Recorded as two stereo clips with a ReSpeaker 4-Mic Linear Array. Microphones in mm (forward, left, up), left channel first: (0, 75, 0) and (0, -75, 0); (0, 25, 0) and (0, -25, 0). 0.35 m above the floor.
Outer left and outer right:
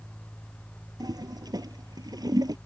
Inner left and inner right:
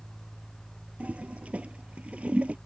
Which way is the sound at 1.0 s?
25° right (ahead or behind).